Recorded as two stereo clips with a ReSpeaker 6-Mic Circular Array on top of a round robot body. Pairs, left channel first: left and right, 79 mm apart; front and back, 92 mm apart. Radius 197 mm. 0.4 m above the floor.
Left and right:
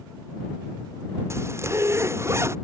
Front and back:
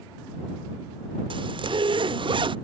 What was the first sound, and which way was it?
A zipper, 145° right.